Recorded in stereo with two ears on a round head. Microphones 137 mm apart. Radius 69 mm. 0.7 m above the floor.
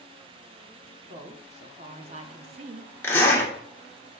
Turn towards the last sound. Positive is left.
turn(degrees=15)  # may be behind; listen again after turning